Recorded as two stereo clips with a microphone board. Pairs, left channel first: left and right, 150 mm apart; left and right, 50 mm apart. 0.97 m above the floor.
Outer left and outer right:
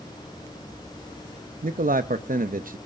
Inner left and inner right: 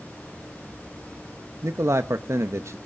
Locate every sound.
1.6 s a man speaking: 65° right (ahead or behind), 0.7 m